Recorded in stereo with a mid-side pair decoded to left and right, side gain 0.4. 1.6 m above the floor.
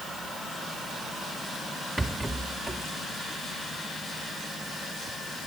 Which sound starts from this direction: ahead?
A rattle, at 2.0 s.